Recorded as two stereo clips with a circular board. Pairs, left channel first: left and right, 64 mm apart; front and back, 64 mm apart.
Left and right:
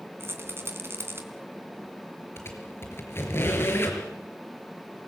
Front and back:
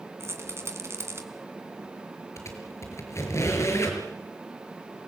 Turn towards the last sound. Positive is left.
turn(degrees=40)